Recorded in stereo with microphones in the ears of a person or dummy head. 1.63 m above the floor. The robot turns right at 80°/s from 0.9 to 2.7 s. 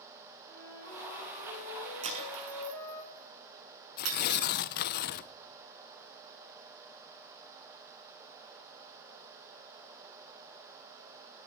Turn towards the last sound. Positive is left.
turn(degrees=50)  # may be behind; listen again after turning